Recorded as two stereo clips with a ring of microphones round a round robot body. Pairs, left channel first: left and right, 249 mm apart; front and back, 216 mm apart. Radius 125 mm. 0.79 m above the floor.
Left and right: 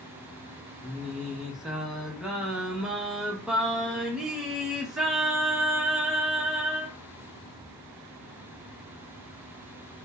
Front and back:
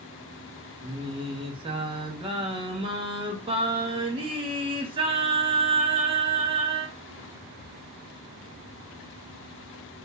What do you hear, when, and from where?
0.8 s singing: 175° right, 0.6 m